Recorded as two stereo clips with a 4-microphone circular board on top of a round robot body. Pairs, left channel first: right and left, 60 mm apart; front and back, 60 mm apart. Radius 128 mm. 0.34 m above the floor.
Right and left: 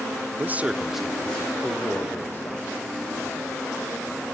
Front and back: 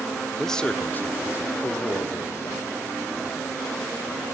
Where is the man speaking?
85° left, 0.9 m; by 2.6 s 35° right, 2 m.